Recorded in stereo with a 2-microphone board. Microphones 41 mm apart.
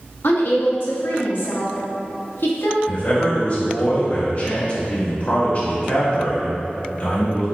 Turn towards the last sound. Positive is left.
turn(degrees=40)  # may be behind; listen again after turning